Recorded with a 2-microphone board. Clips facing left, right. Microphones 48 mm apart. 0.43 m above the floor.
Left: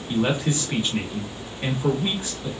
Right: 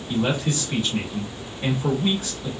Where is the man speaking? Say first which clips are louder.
Left 1 dB; 30° left (ahead or behind), 1.3 m.